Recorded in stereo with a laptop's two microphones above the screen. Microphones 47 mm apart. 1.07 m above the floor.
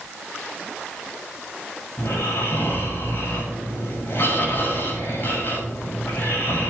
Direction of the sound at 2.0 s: 50° left (ahead or behind).